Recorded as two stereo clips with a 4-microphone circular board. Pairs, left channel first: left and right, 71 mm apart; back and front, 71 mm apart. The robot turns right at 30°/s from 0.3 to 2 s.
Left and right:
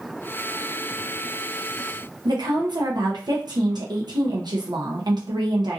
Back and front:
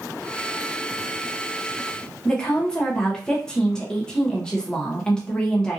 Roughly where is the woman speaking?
Right.